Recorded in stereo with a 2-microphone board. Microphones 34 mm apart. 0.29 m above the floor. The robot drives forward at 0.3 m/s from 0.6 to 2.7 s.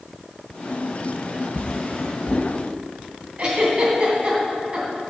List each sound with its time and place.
1.6 s a drawer: 35° left (ahead or behind), 1.4 m; by 2.5 s 45° left (ahead or behind), 1.2 m
3.4 s a giggle: 25° right (ahead or behind), 2.5 m